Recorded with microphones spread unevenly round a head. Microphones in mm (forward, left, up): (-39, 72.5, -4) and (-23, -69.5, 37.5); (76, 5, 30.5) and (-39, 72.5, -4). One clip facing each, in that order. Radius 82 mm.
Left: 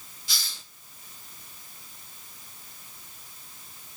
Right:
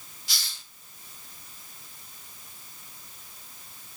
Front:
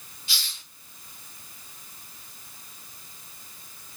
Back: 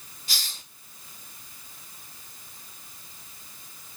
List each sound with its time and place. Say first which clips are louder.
0.3 s a hiss: left 1 dB, back 1 dB; 100° left, 1.2 m